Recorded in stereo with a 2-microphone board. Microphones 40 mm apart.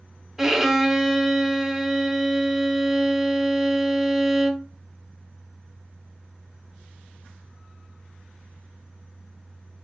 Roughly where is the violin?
Centre.